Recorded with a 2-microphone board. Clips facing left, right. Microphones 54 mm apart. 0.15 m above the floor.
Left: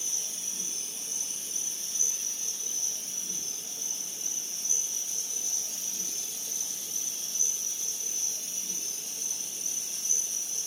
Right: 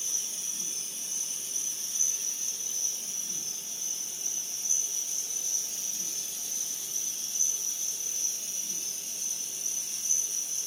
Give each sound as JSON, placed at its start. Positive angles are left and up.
{"t": 0.0, "sound": "an insect", "side_deg": 50, "distance_m": 0.9}